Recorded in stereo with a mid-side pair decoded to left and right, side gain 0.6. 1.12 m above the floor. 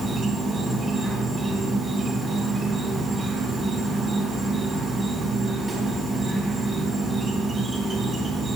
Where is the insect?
30° right, 3 m.